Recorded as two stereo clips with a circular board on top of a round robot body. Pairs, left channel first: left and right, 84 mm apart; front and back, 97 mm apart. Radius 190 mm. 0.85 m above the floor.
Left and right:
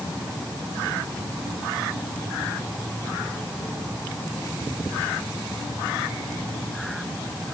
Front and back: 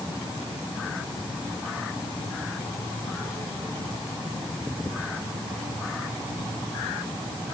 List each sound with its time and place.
Only background noise.